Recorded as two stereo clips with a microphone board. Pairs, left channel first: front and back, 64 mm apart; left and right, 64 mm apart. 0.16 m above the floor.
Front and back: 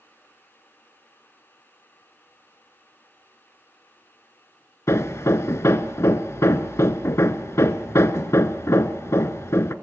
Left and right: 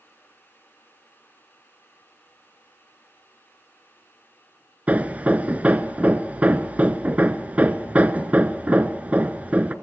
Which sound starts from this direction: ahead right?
Hammering, at 4.9 s.